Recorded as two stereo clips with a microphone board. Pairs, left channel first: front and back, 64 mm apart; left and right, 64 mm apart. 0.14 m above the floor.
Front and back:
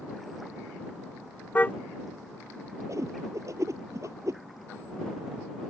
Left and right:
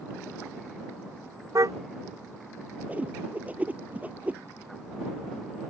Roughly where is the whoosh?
Behind right.